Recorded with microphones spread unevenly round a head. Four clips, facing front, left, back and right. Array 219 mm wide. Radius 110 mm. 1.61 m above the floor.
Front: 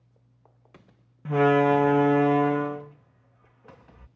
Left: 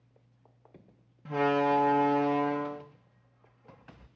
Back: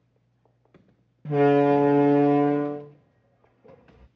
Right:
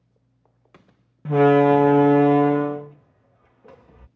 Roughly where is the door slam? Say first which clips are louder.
Right 11 dB, back 1 dB; right.